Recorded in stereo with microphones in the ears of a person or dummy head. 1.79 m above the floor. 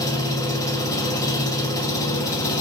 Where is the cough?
I don't hear a cough.